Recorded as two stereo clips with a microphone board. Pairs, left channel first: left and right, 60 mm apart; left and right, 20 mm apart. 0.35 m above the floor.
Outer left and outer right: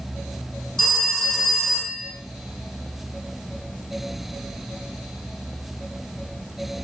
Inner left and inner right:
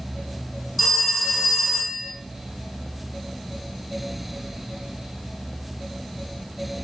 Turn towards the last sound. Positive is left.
turn(degrees=10)  # may be behind; listen again after turning